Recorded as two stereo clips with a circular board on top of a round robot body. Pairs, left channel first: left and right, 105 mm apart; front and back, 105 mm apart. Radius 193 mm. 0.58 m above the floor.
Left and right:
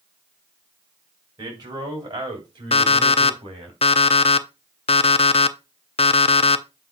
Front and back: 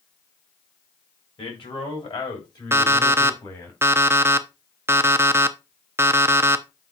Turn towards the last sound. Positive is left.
turn(degrees=115)